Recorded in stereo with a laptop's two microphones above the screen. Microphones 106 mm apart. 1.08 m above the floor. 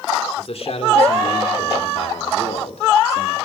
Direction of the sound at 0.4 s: 65° left (ahead or behind).